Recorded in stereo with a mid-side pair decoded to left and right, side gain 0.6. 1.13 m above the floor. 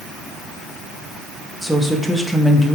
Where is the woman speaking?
Straight ahead, 1.5 m.